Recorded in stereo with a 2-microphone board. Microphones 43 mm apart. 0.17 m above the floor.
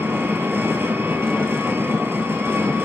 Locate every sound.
0.0 s an engine running: 65° right (ahead or behind), 1.8 m